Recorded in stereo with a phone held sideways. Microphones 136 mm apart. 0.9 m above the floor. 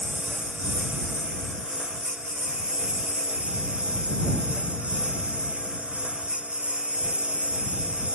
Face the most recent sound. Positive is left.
turn(degrees=-5)  # may be behind; listen again after turning